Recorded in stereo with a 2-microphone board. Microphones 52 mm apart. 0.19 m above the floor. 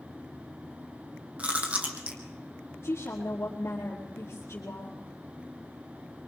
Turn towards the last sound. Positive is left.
turn(degrees=45)  # may be behind; listen again after turning